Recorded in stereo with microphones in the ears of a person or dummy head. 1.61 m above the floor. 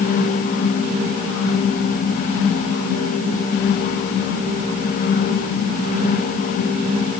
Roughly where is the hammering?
I don't hear hammering.